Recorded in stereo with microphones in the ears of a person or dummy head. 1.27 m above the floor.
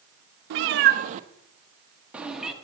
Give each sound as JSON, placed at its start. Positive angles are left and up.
{"t": 0.5, "sound": "a cat meowing", "side_deg": -55, "distance_m": 0.7}